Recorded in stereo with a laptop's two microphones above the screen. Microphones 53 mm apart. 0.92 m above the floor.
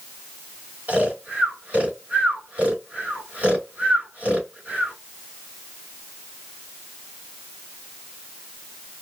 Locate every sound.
0.9 s snoring: 30° right (ahead or behind), 2.5 m